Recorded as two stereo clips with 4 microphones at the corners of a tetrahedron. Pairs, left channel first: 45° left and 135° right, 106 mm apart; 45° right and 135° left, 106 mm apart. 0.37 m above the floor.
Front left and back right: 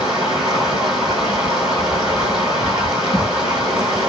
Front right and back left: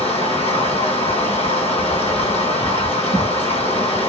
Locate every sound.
0.0 s running water: 55° right, 1.5 m